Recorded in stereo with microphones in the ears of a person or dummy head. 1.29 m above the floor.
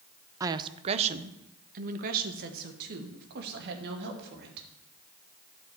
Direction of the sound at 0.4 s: 20° right (ahead or behind).